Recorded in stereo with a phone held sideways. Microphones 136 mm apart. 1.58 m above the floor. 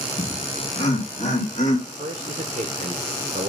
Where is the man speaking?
70° right (ahead or behind), 0.9 m.